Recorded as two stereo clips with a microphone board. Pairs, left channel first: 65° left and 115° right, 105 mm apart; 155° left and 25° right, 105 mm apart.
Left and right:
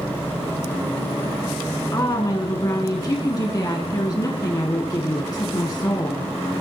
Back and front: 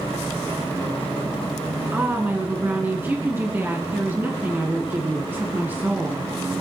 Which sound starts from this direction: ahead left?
A woman speaking, at 1.9 s.